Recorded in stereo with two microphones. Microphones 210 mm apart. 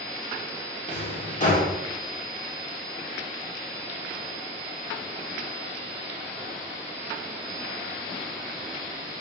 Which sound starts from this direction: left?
A drawer, at 0.9 s.